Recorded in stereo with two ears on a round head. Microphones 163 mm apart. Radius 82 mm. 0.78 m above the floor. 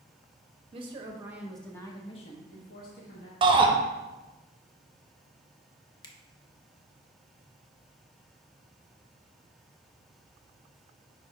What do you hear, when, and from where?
0.7 s a woman speaking: 30° right (ahead or behind), 1.1 m; by 3.3 s 60° left (ahead or behind), 1.5 m
3.4 s a shout: 30° right (ahead or behind), 0.8 m
6.0 s a finger snap: 25° left (ahead or behind), 0.7 m